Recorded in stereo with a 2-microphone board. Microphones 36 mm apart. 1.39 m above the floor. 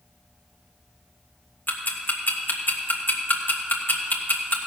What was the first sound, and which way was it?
Ticking, 55° left (ahead or behind).